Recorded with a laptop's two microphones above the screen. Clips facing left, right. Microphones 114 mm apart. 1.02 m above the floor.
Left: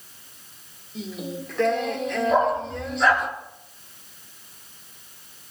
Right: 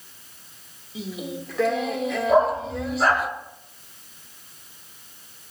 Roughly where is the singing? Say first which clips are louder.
Even; centre.